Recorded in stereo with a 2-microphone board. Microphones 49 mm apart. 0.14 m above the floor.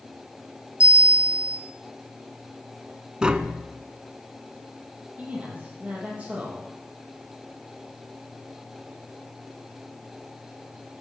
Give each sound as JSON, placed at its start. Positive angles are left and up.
{"t": 0.8, "sound": "a bell", "side_deg": -25, "distance_m": 1.2}
{"t": 3.2, "sound": "tapping", "side_deg": -15, "distance_m": 0.5}
{"t": 5.2, "sound": "a man speaking", "side_deg": -25, "distance_m": 3.5}